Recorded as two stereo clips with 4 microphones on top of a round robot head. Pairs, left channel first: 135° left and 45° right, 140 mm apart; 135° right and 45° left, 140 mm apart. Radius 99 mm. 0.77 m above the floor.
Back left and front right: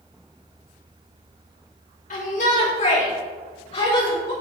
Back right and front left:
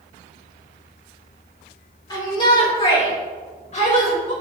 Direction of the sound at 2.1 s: 165° left.